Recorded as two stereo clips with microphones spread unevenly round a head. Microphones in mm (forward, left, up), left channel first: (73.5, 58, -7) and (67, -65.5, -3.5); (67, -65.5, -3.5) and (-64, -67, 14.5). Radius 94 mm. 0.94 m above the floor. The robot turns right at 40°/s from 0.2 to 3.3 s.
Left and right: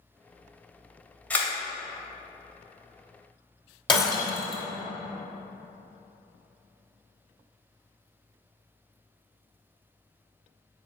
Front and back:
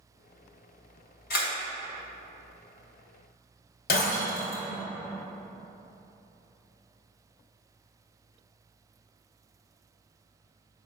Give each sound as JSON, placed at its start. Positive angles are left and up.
{"t": 1.3, "sound": "a camera shutter", "azimuth_deg": 10, "distance_m": 2.5}
{"t": 3.9, "sound": "breaking glass", "azimuth_deg": 35, "distance_m": 1.9}